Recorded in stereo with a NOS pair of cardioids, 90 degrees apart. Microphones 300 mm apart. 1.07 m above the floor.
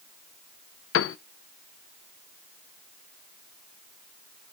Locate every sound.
0.9 s a piano: 45° left, 0.7 m